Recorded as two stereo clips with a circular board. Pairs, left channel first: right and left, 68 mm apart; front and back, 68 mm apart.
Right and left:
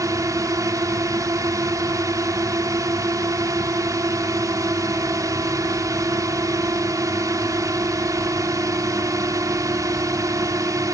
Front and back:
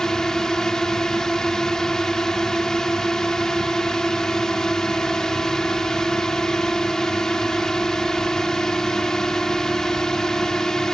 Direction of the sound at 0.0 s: 80° left.